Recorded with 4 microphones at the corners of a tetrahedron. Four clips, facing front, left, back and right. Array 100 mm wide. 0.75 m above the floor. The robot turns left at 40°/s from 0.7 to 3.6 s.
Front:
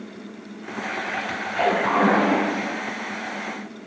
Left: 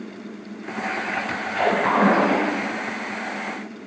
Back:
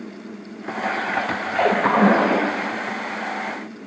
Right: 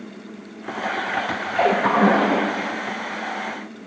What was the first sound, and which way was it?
A splash, 150° right.